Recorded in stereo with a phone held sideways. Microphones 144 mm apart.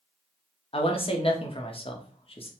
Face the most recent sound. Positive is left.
turn(degrees=40)  # may be behind; listen again after turning